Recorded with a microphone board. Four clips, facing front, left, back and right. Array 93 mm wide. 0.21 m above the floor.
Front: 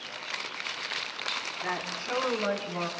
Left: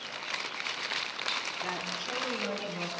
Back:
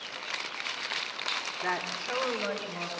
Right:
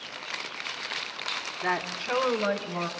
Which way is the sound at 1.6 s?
100° right.